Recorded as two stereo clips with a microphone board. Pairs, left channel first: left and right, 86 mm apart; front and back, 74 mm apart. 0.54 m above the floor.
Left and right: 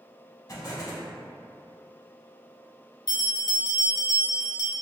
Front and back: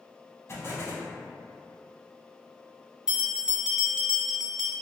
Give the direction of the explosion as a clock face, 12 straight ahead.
10 o'clock.